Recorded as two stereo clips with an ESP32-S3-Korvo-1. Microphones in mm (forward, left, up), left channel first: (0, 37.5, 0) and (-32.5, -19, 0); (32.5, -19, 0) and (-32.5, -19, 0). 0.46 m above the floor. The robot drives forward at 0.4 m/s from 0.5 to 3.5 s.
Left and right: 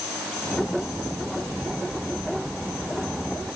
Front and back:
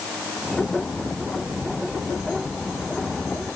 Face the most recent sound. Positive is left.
No sound to turn to.